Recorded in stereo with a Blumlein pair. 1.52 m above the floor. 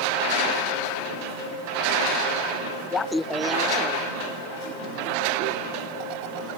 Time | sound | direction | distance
2.9 | laughter | 25° left | ?